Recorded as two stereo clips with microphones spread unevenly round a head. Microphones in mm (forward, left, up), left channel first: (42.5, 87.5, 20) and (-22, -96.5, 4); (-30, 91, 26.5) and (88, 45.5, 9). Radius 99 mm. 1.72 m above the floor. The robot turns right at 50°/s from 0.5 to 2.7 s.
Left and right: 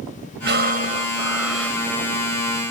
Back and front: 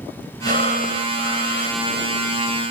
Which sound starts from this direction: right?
Breathing, at 0.5 s.